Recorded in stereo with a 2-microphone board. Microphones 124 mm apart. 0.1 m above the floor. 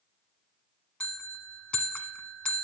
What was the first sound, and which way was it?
A bell, 10° left (ahead or behind).